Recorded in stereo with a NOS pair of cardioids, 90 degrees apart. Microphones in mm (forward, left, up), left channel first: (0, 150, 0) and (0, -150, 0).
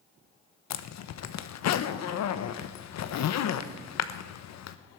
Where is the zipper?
65° left, 1.1 m.